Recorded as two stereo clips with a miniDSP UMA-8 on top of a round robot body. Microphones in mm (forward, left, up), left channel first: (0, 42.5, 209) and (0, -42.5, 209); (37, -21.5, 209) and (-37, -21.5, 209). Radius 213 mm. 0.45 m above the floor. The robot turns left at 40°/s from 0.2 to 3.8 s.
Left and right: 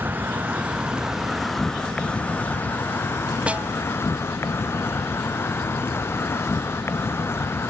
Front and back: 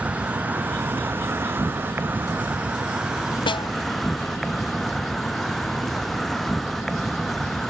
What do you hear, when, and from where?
0.0 s an insect: 130° right; by 7.7 s 85° left
3.5 s a snare drum: 10° right; by 3.7 s 20° right